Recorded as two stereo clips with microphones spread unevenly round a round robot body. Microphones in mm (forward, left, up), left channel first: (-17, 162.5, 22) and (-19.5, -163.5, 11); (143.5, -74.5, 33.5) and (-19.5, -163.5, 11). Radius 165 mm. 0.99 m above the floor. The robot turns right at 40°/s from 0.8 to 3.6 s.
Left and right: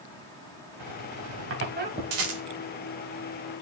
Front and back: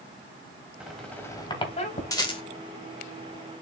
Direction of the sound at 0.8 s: 65° right.